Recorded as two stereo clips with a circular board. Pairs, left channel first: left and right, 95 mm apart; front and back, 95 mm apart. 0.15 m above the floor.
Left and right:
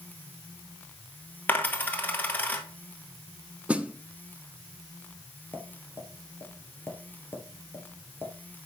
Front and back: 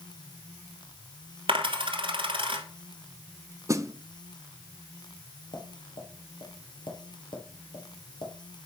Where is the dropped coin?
160° left, 1.5 m.